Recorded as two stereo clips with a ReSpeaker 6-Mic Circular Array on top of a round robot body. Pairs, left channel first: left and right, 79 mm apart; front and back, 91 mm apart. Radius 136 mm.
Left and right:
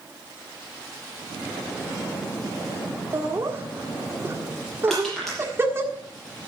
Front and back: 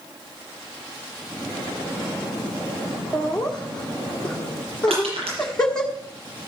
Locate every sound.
3.1 s laughter: 75° right, 1.6 m
4.9 s crushing: 175° left, 6.5 m